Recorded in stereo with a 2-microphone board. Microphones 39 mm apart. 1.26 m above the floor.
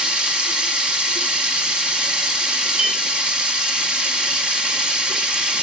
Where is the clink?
40° right (ahead or behind), 1.7 m.